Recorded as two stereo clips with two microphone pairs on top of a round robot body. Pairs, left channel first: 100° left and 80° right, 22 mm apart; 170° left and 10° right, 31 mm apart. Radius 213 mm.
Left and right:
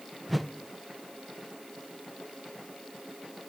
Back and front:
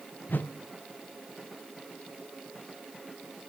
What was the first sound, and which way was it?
A whoosh, 170° right.